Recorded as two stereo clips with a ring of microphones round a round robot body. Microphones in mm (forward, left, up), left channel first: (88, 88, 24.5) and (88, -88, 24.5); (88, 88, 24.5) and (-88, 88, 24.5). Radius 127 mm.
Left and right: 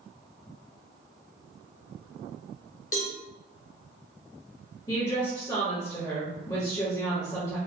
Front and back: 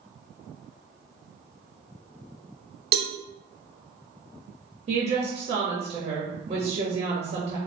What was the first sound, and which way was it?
A cowbell, 150° left.